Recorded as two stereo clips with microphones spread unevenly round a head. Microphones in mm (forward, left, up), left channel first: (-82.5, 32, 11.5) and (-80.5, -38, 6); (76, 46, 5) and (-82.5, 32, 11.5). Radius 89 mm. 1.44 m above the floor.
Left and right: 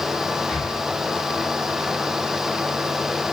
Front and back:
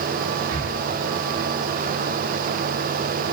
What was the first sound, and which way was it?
Breathing, straight behind.